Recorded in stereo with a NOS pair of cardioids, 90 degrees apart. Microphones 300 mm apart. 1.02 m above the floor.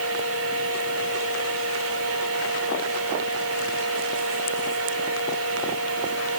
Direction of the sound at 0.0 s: 50° right.